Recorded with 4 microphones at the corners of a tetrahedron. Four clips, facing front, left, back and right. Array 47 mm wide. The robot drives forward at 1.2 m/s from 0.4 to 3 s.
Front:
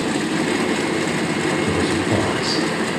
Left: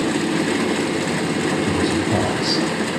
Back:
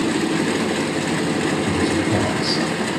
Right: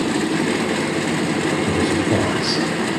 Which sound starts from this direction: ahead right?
A man speaking, at 1.7 s.